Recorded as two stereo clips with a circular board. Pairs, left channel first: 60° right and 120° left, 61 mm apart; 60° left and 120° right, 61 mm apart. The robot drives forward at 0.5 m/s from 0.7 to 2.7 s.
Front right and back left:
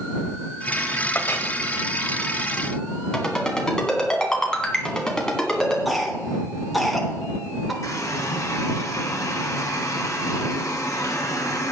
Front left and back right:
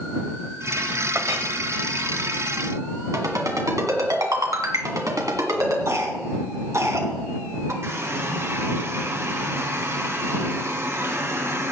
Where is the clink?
100° right, 1.0 m; by 1.5 s 115° right, 1.1 m.